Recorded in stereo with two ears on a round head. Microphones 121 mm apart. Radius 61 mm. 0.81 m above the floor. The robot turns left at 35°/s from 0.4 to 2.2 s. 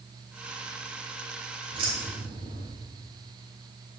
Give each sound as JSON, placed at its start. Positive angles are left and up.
{"t": 1.7, "sound": "keys jangling", "side_deg": -35, "distance_m": 1.9}